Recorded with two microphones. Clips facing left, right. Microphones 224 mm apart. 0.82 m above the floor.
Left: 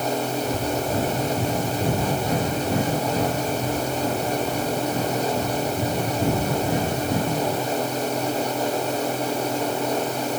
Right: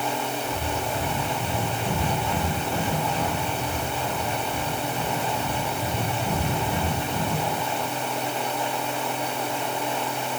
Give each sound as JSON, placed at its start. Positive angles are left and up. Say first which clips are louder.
{"t": 0.4, "sound": "breathing", "louder": "left 5 dB", "side_deg": 60, "distance_m": 6.5}